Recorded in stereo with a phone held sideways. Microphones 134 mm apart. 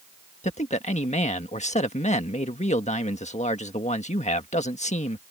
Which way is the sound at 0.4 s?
60° left (ahead or behind).